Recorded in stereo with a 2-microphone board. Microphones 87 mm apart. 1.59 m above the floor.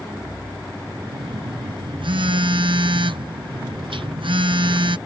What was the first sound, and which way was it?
A phone buzzing, 85° right.